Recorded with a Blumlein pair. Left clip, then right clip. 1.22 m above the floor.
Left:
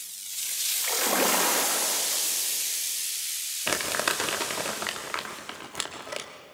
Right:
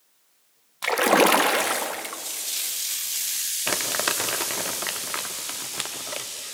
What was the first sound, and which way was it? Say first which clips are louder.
A splash: right 9 dB; 30° right.